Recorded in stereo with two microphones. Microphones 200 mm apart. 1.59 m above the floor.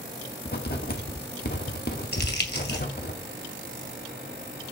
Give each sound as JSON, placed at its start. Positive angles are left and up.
{"t": 0.5, "sound": "writing", "side_deg": 50, "distance_m": 1.7}
{"t": 2.1, "sound": "crumpling", "side_deg": 55, "distance_m": 2.0}